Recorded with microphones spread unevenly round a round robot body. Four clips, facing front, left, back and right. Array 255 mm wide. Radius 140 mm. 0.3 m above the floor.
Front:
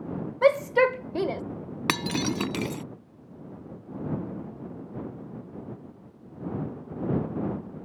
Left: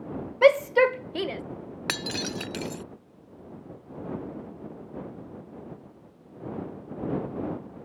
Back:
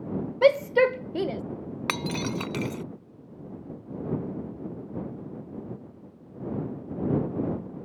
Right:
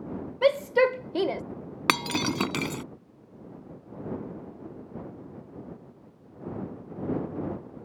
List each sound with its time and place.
0.4 s a shout: 130° left; by 1.4 s 110° right
1.9 s breaking glass: 65° right